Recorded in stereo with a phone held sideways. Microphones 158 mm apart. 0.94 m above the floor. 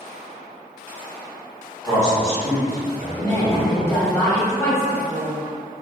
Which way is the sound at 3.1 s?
10° left (ahead or behind).